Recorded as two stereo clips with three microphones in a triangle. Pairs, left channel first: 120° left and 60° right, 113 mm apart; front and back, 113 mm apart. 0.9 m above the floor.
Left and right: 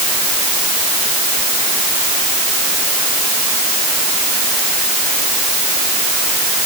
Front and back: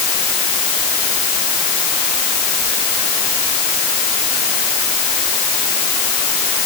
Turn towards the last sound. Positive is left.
No sound to turn to.